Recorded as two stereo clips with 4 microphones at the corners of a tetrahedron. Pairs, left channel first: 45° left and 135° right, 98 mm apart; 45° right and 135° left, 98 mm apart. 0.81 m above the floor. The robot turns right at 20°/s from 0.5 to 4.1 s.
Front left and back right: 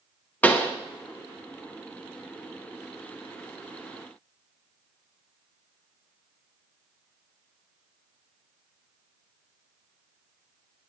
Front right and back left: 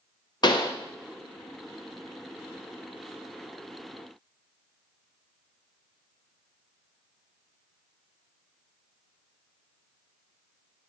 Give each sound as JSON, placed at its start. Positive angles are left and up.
{"t": 0.4, "sound": "a pop", "azimuth_deg": -25, "distance_m": 0.7}